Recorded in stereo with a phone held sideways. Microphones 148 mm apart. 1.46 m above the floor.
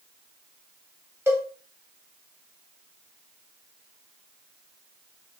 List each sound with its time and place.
1.3 s a cowbell: 15° right (ahead or behind), 1.3 m